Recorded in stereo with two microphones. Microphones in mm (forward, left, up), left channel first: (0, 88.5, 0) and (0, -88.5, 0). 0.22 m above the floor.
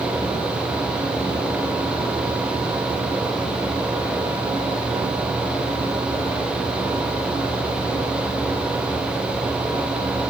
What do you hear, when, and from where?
Only background noise.